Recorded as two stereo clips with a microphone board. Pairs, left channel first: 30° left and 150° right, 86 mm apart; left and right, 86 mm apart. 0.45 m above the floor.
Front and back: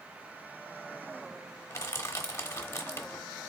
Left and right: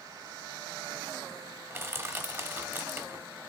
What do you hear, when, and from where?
1.7 s crushing: 30° right, 0.9 m